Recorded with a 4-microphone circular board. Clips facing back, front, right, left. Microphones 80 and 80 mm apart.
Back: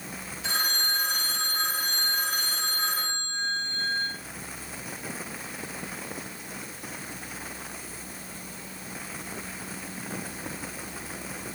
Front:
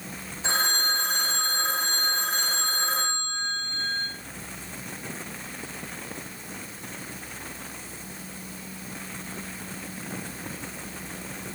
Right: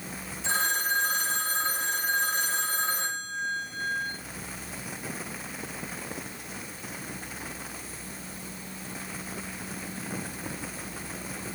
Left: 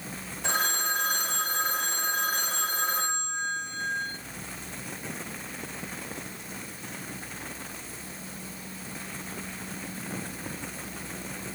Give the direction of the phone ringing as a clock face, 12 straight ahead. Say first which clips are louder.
Front 4 dB, right 1 dB; 10 o'clock.